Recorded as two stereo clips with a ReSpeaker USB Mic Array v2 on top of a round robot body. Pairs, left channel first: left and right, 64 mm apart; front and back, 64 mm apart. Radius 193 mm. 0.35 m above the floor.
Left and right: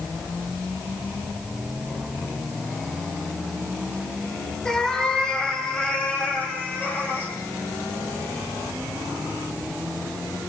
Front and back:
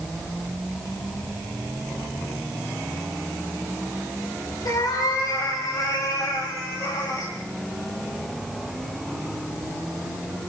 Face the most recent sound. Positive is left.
turn(degrees=35)